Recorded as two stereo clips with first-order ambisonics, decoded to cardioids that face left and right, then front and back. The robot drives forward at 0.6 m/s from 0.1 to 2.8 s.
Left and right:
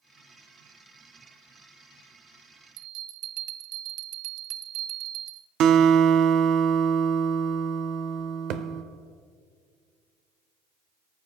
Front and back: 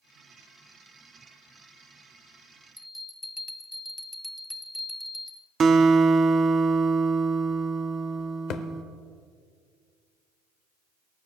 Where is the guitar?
120° right, 0.6 m.